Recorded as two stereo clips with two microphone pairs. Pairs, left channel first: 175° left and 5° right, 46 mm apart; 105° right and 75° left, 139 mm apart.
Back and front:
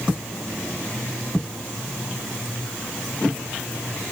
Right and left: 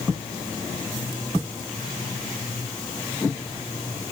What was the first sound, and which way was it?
Only background noise.